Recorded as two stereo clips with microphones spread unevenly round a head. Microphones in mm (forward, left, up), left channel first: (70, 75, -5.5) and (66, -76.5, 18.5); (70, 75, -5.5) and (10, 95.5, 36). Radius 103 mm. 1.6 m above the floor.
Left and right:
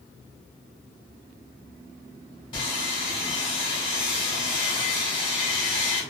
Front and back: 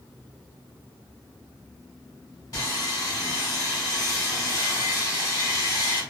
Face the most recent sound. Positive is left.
turn(degrees=30)